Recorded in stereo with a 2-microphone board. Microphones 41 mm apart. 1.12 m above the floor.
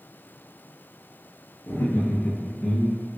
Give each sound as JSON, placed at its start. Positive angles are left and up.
{"t": 1.7, "sound": "laughter", "side_deg": 75, "distance_m": 0.8}